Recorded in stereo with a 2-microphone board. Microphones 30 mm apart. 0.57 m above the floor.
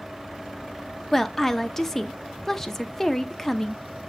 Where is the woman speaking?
15° left (ahead or behind), 0.7 m.